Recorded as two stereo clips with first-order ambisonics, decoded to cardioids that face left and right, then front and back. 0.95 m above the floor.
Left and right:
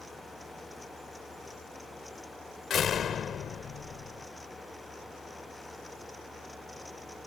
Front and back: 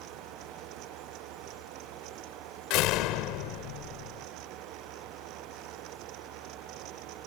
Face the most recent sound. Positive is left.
turn(degrees=30)